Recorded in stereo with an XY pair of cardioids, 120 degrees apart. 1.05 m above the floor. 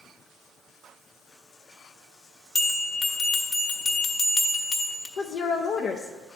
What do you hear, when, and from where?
2.5 s a bell: 40° left, 1.1 m
5.2 s a woman speaking: 60° left, 0.6 m